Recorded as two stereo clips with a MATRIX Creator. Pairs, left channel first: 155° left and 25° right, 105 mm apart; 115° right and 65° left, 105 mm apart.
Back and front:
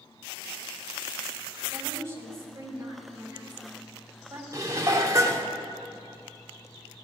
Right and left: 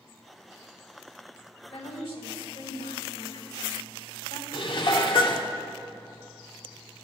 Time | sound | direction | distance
1.7 | a woman speaking | 85° right | 4 m
4.5 | dishes clattering | 80° right | 1.4 m